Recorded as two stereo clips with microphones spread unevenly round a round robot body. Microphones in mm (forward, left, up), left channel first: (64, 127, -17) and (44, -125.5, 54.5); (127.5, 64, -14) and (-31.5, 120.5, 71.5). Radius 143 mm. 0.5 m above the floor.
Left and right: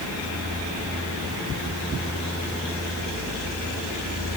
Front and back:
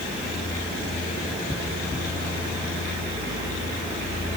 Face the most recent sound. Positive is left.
No sound to turn to.